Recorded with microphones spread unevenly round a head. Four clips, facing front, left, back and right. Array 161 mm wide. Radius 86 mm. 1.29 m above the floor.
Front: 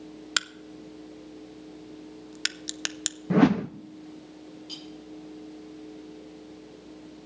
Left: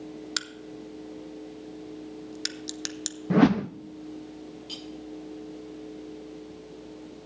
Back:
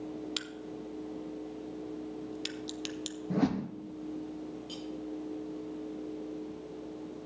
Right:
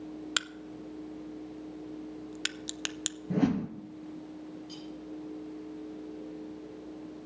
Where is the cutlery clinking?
80° left, 7.5 m.